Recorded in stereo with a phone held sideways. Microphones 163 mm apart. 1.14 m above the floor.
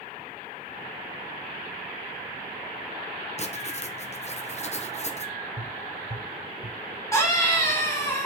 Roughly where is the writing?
Left.